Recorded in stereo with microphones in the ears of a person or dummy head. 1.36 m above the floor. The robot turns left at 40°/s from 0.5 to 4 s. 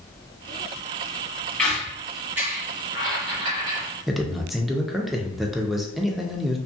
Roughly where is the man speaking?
Centre.